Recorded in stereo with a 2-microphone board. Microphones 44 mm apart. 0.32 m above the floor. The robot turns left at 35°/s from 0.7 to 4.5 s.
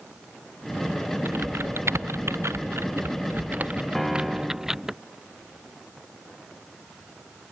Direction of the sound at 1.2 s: 55° right (ahead or behind).